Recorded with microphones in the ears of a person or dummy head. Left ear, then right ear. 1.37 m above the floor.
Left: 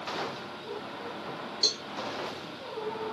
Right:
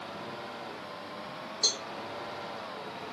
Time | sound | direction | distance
1.6 | a cowbell | 50° left (ahead or behind) | 1.8 m